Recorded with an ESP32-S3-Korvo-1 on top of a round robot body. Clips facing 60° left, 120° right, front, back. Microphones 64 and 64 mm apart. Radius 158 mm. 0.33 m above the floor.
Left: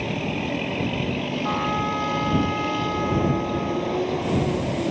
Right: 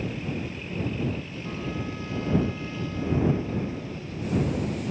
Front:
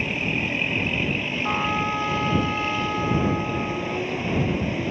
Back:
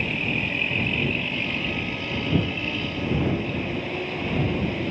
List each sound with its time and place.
0.0 s a vehicle: 85° left
1.4 s a trumpet: 30° left